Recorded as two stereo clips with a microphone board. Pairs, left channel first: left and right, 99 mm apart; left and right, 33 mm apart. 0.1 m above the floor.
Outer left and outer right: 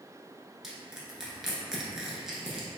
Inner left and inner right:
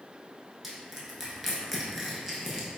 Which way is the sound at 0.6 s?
5° right (ahead or behind).